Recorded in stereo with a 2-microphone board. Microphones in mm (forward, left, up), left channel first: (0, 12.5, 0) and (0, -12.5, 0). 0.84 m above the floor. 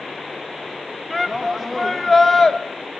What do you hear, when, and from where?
1.1 s a shout: 5° right (ahead or behind), 1.4 m; by 2.6 s 15° left (ahead or behind), 1.0 m